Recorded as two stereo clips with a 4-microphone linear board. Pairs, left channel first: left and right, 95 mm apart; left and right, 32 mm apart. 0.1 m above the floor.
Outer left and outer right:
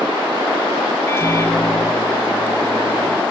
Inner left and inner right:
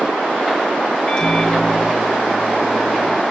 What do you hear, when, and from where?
1.1 s a microwave: 25° left (ahead or behind), 1.2 m